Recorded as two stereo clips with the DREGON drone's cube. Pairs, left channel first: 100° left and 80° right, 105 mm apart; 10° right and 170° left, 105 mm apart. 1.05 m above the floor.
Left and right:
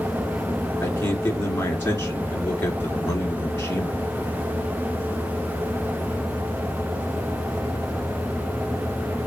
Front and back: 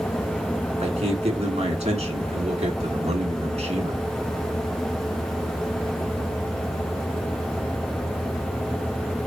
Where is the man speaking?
170° left, 2 m.